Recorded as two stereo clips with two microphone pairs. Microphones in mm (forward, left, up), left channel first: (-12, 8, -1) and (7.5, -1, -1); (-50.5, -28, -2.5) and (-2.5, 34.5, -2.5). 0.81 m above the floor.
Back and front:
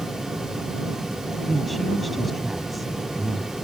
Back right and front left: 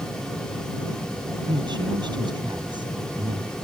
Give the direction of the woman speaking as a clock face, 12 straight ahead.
10 o'clock.